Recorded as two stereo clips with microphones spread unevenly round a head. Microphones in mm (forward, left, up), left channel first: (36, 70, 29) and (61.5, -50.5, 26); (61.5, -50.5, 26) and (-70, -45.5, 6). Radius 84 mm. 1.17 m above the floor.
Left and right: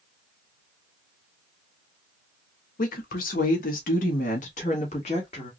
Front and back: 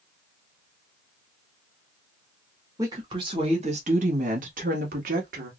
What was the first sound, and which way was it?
A woman speaking, 105° left.